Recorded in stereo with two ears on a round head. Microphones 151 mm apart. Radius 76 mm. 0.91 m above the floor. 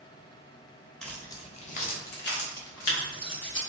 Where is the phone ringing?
I don't hear a phone ringing.